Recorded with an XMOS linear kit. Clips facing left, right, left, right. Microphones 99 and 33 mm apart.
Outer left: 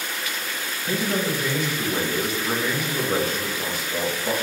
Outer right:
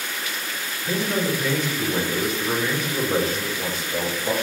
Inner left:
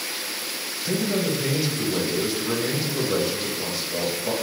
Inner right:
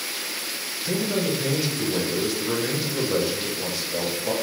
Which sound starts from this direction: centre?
A man speaking, at 0.8 s.